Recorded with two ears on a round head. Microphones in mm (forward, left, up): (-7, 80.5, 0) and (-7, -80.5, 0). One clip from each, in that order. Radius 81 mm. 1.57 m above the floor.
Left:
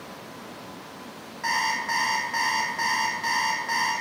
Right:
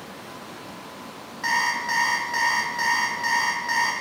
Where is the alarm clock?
10° right (ahead or behind), 0.7 m.